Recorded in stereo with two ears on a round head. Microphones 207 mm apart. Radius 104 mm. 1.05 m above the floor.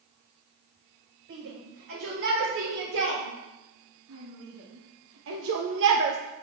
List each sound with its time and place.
1.3 s a shout: 55° right (ahead or behind), 5.5 m; by 6.2 s 45° right (ahead or behind), 0.9 m